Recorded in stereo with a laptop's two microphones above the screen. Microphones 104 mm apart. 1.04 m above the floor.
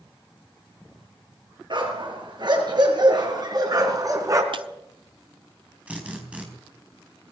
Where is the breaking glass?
55° right (ahead or behind), 1.0 m.